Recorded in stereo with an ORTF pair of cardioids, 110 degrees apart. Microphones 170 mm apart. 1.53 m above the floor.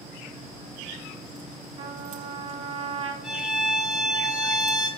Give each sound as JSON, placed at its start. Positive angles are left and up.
{"t": 1.8, "sound": "a trumpet", "azimuth_deg": -35, "distance_m": 1.0}
{"t": 3.2, "sound": "a violin", "azimuth_deg": -5, "distance_m": 1.3}